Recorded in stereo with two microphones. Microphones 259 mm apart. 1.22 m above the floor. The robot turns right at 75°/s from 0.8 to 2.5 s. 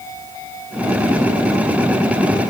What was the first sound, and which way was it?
Only background noise.